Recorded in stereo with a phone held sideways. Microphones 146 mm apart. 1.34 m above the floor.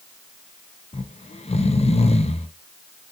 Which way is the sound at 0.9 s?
45° left (ahead or behind).